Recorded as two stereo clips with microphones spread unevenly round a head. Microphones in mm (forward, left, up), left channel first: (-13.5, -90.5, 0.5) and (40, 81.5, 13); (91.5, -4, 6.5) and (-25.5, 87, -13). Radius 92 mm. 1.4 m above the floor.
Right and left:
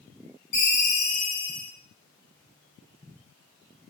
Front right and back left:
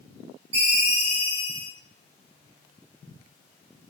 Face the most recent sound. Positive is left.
turn(degrees=-155)